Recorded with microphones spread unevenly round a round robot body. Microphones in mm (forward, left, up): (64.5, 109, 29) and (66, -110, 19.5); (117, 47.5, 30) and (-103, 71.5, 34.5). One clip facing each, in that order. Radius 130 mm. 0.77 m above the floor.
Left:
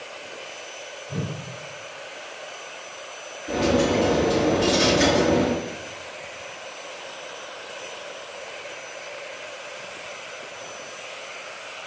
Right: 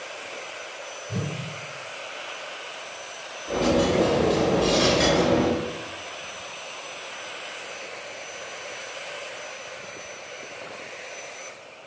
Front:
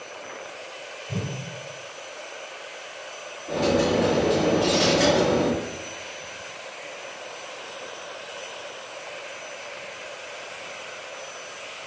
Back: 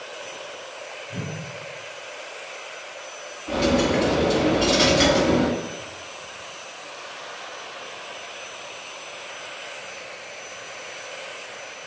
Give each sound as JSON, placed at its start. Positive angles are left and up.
{"t": 1.1, "sound": "a whoosh", "azimuth_deg": -25, "distance_m": 3.0}
{"t": 3.5, "sound": "a dropped coin", "azimuth_deg": 180, "distance_m": 3.5}